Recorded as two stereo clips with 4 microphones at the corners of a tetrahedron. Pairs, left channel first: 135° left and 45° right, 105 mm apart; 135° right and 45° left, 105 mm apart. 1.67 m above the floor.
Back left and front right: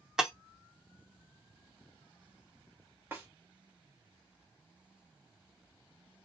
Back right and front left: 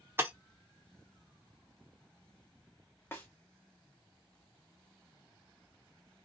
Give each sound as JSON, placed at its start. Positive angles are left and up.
{"t": 0.2, "sound": "breaking glass", "azimuth_deg": 30, "distance_m": 0.8}
{"t": 3.1, "sound": "a snare drum", "azimuth_deg": -95, "distance_m": 1.2}